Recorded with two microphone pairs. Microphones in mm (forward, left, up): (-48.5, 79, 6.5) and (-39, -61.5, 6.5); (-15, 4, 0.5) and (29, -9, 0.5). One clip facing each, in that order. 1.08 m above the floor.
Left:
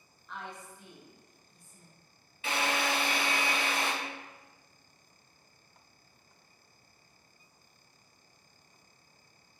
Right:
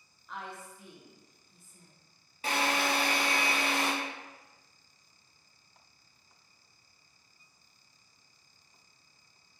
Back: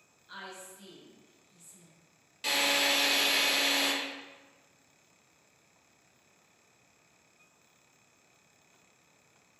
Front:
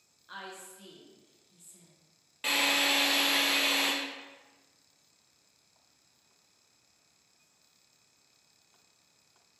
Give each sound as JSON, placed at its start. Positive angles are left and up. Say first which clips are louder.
{"t": 0.3, "sound": "a woman speaking", "louder": "right 1 dB, front 1 dB", "azimuth_deg": 0, "distance_m": 0.6}
{"t": 2.4, "sound": "a drill", "louder": "right 1 dB, front 1 dB", "azimuth_deg": -65, "distance_m": 0.5}